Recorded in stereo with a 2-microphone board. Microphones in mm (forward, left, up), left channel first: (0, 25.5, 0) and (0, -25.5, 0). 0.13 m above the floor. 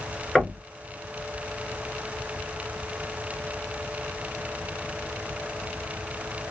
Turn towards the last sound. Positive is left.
turn(degrees=5)  # may be behind; listen again after turning